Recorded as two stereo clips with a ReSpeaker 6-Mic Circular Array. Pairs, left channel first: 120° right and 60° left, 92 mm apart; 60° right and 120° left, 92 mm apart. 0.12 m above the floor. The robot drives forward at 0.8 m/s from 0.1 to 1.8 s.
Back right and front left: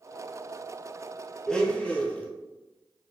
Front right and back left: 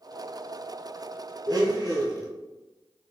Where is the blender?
155° left, 0.8 m; by 2.3 s 165° left, 1.1 m.